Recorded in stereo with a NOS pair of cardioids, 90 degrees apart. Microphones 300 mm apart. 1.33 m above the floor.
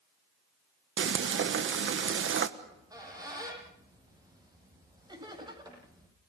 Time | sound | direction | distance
1.0 | frying | 45° right | 1.4 m
2.6 | a squeak | 10° right | 10 m
5.1 | laughter | 15° right | 9 m